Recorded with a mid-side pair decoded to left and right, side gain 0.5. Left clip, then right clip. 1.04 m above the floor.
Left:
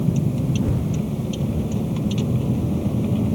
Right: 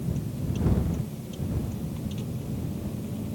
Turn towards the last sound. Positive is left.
turn(degrees=65)